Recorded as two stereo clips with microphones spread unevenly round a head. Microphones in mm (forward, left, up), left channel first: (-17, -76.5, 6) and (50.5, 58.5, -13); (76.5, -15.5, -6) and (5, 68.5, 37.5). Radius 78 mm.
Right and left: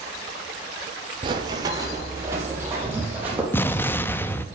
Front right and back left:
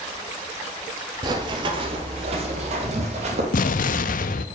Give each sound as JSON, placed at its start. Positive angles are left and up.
{"t": 1.2, "sound": "running footsteps", "azimuth_deg": 125, "distance_m": 1.5}
{"t": 3.5, "sound": "an explosion", "azimuth_deg": -45, "distance_m": 0.6}